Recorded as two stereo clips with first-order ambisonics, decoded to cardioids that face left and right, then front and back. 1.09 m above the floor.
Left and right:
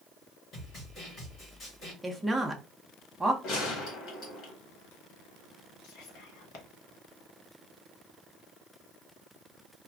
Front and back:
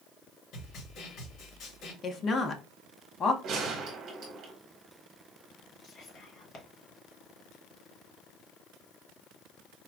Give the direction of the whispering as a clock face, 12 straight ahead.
10 o'clock.